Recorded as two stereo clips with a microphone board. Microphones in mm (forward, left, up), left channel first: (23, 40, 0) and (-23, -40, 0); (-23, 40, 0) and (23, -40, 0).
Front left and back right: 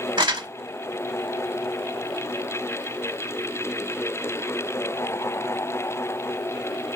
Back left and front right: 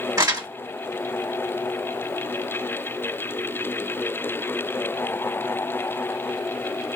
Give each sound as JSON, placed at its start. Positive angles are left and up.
{"t": 0.2, "sound": "crumpling", "azimuth_deg": -105, "distance_m": 1.2}